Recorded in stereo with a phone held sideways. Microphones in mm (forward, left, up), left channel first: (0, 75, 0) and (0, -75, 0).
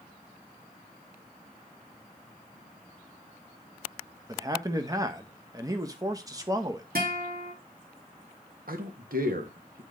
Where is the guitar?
90° right, 2 m.